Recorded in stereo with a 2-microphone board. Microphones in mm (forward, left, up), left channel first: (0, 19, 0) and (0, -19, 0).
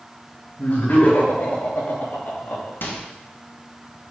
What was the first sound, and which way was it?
Laughter, 45° left (ahead or behind).